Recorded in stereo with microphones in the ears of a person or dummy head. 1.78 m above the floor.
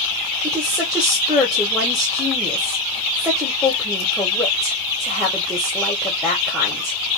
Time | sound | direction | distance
0.4 | a woman speaking | 5° left (ahead or behind) | 1.3 m